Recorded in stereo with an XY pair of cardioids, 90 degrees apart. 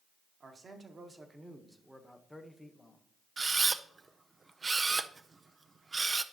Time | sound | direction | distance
0.4 | a man speaking | 45° right | 1.7 m
3.4 | a camera shutter | 30° right | 0.6 m